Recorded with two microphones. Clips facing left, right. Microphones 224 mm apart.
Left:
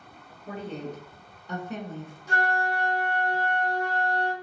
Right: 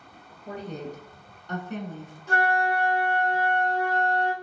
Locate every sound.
0.5 s a woman speaking: 25° right (ahead or behind), 1.2 m; by 2.1 s 30° left (ahead or behind), 1.2 m
2.3 s a flute: 15° left (ahead or behind), 1.8 m